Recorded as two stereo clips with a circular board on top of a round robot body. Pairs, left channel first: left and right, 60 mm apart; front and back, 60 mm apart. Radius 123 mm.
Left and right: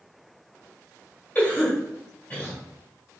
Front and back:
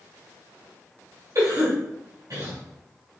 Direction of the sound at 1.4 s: 155° left.